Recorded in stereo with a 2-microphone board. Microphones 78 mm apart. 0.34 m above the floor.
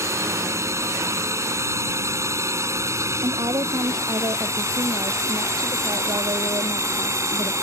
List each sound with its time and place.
0.0 s a drone: 40° right (ahead or behind)
3.2 s a woman speaking: 65° right (ahead or behind)